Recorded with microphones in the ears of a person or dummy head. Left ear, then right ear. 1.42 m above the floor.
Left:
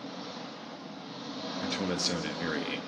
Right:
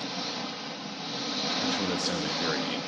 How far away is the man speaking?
About 2.5 m.